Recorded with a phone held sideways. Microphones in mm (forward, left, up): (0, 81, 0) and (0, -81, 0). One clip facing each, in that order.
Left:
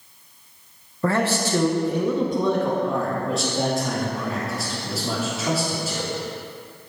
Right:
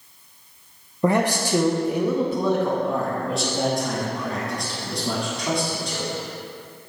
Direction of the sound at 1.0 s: 15° right (ahead or behind).